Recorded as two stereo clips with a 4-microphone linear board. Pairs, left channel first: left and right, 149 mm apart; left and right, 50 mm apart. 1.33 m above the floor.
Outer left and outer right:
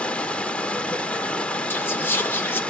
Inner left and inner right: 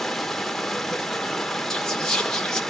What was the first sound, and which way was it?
Running water, 10° left (ahead or behind).